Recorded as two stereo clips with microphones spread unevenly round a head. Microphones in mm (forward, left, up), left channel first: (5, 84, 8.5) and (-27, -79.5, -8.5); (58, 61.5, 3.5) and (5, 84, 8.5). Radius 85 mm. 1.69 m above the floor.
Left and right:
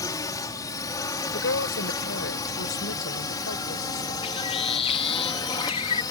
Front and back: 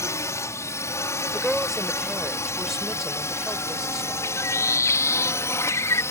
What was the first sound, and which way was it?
A drone, 10° left.